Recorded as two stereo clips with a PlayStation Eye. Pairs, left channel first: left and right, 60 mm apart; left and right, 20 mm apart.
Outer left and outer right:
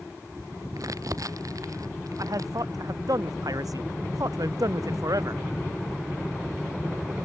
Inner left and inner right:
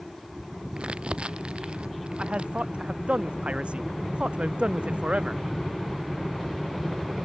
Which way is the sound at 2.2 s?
75° right (ahead or behind).